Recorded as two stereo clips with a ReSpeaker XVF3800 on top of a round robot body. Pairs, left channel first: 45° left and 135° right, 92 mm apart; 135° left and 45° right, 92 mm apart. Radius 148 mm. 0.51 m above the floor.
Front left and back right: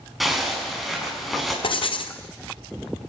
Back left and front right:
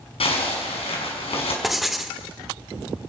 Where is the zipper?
135° left, 6 m.